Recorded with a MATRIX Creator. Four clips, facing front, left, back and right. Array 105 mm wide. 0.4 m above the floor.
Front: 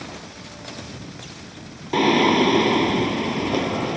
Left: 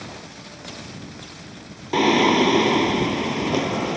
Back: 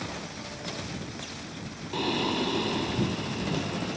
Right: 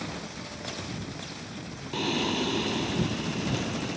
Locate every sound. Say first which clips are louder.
1.9 s singing: left 12 dB, front 12 dB; 50° left